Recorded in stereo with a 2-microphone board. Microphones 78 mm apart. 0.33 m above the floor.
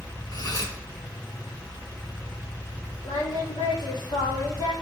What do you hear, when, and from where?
0.3 s cutlery clinking: 55° left (ahead or behind), 2 m
3.0 s singing: 70° left (ahead or behind), 3 m